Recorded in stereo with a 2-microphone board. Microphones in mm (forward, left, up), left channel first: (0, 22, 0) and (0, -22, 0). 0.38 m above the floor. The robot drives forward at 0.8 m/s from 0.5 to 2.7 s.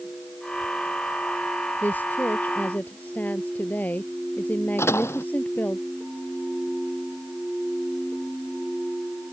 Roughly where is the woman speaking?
Left.